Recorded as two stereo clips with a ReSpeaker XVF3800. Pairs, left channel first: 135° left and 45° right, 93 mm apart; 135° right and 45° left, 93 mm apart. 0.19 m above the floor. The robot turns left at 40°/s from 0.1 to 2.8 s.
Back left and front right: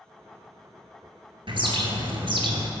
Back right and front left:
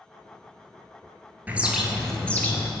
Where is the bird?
25° right, 0.7 m; by 2.7 s 75° right, 0.7 m.